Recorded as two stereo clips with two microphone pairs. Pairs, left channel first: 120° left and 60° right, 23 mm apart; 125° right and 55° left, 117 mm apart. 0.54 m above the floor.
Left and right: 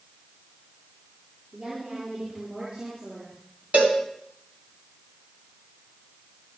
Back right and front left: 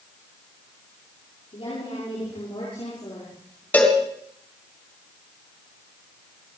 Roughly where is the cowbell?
Ahead right.